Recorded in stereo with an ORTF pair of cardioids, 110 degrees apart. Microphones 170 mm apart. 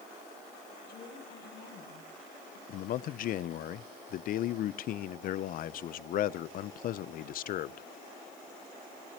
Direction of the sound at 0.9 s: 65° left.